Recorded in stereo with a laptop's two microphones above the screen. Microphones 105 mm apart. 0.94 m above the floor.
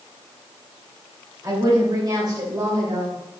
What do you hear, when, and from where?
1.4 s a woman speaking: 35° right (ahead or behind), 3 m; by 3.1 s 45° right (ahead or behind), 4 m